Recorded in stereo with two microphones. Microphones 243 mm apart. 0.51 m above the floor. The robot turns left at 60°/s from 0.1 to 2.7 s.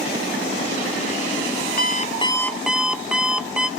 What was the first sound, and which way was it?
An alarm clock, 50° left.